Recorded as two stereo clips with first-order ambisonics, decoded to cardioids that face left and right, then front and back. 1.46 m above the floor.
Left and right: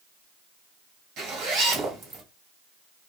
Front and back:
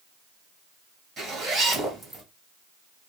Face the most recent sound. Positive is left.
turn(degrees=-105)